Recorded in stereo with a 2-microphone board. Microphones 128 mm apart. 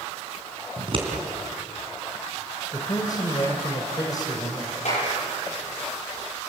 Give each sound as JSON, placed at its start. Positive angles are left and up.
{"t": 0.8, "sound": "scissors", "side_deg": -45, "distance_m": 3.5}
{"t": 2.7, "sound": "a man speaking", "side_deg": 30, "distance_m": 2.0}
{"t": 4.8, "sound": "a clap", "side_deg": 70, "distance_m": 9.0}